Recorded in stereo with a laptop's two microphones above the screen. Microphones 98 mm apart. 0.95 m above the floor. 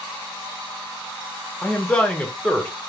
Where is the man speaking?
10° left (ahead or behind), 1.0 m.